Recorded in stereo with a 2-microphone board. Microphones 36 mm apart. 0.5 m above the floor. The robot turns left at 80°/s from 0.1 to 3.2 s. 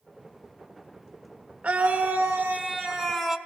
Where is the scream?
55° right, 1.1 m; by 3.4 s straight behind, 1.1 m.